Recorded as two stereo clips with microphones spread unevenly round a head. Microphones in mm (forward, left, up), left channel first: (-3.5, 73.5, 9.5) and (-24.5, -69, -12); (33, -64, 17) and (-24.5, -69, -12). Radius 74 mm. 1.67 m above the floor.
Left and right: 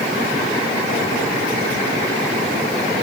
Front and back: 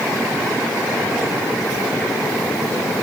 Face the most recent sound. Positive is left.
No sound to turn to.